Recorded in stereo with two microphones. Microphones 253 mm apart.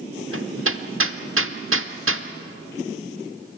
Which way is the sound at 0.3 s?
60° right (ahead or behind).